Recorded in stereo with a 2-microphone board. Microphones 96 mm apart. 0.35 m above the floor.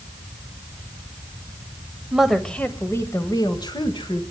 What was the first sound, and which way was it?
A woman speaking, 5° right (ahead or behind).